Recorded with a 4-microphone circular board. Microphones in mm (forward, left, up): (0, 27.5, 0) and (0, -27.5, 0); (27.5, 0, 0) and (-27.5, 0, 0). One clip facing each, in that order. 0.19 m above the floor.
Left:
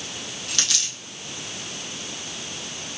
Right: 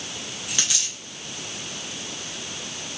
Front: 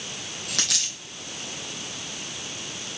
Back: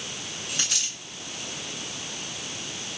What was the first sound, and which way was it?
A dropped coin, 15° right.